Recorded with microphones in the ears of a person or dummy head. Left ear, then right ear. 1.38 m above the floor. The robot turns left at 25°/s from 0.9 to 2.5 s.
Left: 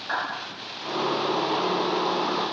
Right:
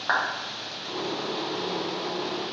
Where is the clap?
35° right (ahead or behind), 1.3 m.